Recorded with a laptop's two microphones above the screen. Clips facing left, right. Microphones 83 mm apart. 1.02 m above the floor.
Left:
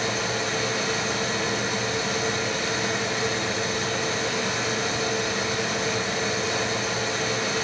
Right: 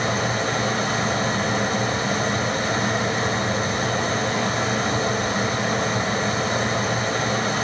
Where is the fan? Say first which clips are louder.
Right 4 dB; 45° right (ahead or behind), 4.5 m.